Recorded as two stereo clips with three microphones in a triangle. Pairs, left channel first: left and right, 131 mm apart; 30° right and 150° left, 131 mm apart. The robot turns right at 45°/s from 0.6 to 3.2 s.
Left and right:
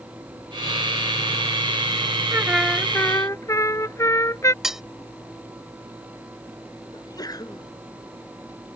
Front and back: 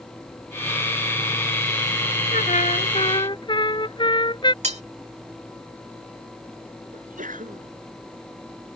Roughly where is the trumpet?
Ahead.